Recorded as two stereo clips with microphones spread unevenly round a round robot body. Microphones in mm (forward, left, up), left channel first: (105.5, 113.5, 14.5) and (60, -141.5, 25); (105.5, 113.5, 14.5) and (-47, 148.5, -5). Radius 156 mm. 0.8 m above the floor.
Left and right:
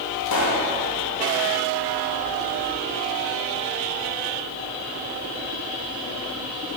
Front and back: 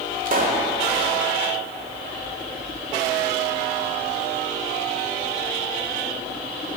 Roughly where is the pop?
Behind left.